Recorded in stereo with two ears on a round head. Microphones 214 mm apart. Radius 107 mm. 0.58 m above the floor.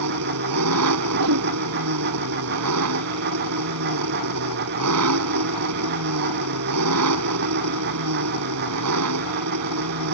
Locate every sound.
0.0 s an engine running: 75° right (ahead or behind)
1.1 s a whoosh: 75° right (ahead or behind)